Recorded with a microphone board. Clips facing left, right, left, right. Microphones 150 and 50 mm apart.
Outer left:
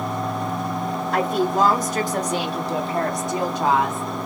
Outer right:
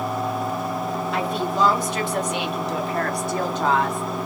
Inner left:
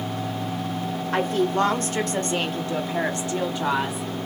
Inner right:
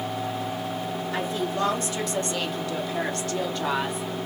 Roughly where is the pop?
I don't hear a pop.